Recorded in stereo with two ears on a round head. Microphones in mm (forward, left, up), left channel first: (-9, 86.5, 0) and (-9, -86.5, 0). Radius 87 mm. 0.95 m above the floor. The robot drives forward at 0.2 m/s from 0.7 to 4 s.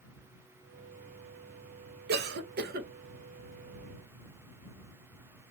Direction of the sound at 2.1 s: 55° right (ahead or behind).